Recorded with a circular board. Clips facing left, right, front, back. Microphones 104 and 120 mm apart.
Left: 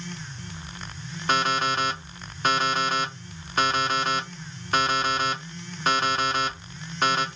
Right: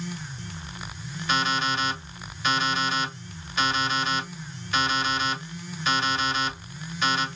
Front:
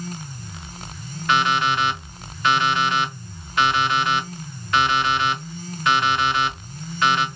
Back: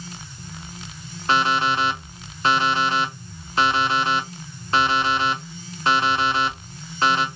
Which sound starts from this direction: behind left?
An alarm clock, at 1.3 s.